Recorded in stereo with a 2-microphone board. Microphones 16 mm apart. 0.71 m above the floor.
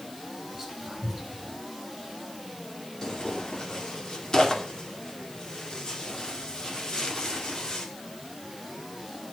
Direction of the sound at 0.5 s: 15° right (ahead or behind).